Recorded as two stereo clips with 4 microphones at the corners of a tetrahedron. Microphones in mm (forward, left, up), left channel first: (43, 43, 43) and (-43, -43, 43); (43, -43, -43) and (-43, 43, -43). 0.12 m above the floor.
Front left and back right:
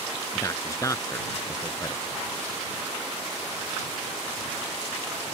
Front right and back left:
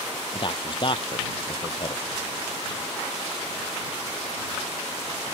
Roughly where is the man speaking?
Ahead.